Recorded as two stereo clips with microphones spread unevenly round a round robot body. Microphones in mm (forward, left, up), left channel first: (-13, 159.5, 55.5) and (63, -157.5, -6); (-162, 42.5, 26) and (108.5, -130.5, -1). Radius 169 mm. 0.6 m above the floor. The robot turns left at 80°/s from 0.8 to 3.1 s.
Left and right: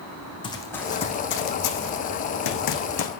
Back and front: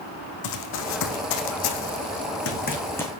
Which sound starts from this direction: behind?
Running footsteps, at 0.4 s.